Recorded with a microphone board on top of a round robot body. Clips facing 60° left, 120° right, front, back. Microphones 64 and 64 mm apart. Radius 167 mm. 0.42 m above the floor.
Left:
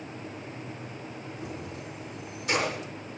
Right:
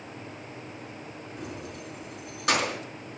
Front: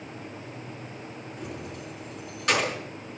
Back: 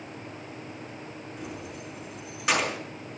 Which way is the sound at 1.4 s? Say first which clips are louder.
Right 2 dB, front 1 dB; 95° right.